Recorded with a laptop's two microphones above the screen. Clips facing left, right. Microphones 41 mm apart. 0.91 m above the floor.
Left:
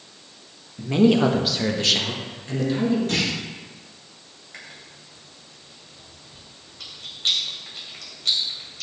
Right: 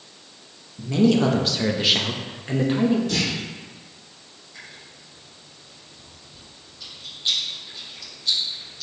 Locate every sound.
0.8 s a man speaking: 35° left (ahead or behind), 1.0 m; by 3.0 s 45° right (ahead or behind), 1.4 m
3.1 s a clunk: 55° left (ahead or behind), 2.5 m
4.5 s chewing: 80° left, 1.9 m